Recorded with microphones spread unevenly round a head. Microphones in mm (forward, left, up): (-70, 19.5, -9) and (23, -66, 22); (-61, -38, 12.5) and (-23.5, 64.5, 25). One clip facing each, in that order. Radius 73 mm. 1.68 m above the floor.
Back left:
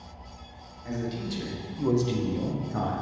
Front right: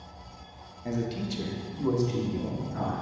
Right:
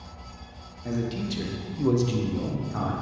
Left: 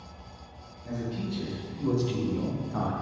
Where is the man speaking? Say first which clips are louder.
Front right 1 dB, right 4 dB; 100° right, 1.9 m; by 2.9 s 145° left, 1.4 m.